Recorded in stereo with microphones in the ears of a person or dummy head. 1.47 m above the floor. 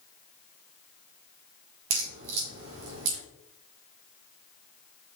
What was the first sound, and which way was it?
A crack, 75° right (ahead or behind).